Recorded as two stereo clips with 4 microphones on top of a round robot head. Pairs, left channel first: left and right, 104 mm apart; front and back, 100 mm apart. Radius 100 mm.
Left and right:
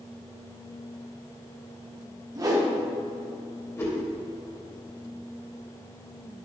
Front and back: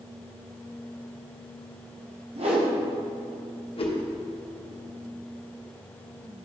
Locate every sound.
2.4 s a whoosh: 145° right, 1.4 m
3.8 s a whoosh: 25° left, 1.3 m